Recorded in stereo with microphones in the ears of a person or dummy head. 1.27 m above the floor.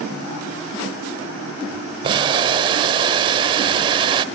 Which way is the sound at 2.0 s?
25° right (ahead or behind).